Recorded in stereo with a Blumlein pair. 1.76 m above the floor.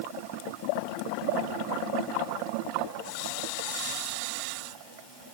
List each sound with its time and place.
Only background noise.